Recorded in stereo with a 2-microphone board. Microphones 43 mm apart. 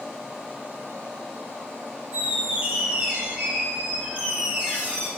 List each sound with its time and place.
2.1 s a squeak: 25° right (ahead or behind), 1.6 m